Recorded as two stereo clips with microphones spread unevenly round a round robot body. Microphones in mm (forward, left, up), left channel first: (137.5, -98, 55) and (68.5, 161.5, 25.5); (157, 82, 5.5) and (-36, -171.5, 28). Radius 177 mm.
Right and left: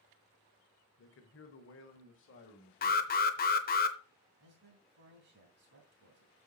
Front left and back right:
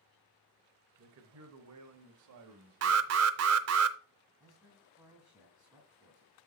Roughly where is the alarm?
Behind right.